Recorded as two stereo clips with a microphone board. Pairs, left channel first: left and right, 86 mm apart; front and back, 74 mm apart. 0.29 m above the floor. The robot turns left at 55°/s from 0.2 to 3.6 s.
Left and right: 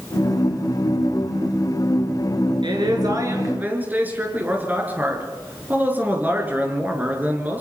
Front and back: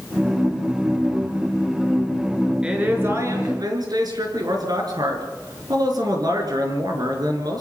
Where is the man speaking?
105° right, 5 m; by 7.6 s 160° right, 5 m.